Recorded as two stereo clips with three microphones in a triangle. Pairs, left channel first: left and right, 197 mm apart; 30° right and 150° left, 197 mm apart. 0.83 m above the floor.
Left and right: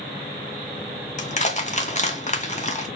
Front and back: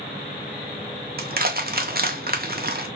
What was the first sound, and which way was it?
Crushing, 130° left.